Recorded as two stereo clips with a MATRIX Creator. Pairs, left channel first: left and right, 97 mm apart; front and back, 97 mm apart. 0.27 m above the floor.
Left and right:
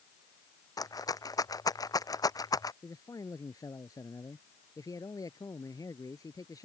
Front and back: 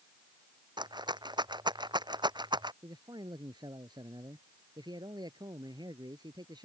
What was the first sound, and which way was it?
A rattle, 140° left.